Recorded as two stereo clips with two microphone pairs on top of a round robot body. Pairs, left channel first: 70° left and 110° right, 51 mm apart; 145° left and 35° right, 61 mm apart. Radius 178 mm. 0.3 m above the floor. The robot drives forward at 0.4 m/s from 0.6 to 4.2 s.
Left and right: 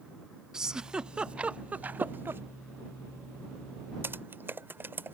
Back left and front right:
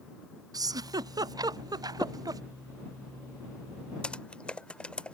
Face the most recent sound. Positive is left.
turn(degrees=-150)